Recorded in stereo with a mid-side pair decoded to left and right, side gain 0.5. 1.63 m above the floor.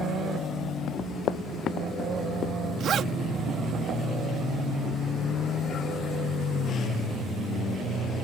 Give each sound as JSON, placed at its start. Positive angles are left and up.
{"t": 0.9, "sound": "running footsteps", "azimuth_deg": 60}
{"t": 2.8, "sound": "a zipper", "azimuth_deg": -55}